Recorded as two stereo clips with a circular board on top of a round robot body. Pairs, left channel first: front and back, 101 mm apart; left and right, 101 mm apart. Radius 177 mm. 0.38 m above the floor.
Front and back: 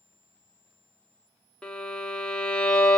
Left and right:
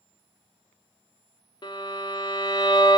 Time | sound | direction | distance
1.6 | a violin | 80° left | 1.0 m